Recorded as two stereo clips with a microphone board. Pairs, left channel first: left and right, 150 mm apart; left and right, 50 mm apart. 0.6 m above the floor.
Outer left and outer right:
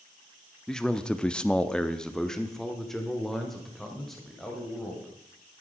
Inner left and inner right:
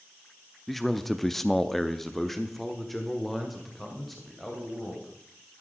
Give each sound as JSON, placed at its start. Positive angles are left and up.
{"t": 0.7, "sound": "a man speaking", "side_deg": 5, "distance_m": 0.8}